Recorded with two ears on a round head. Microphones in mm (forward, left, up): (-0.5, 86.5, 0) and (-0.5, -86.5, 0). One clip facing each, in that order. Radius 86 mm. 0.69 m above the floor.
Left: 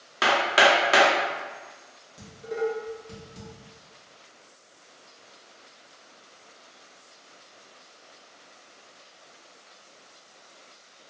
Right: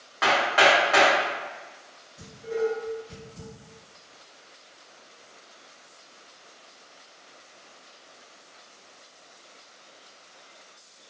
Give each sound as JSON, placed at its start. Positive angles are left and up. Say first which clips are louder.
{"t": 0.2, "sound": "hammering", "louder": "even", "side_deg": 45, "distance_m": 0.6}
{"t": 2.2, "sound": "dishes clattering", "louder": "right 2 dB", "side_deg": 35, "distance_m": 0.9}